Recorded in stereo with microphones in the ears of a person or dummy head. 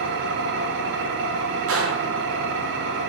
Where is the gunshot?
65° right (ahead or behind), 0.9 m.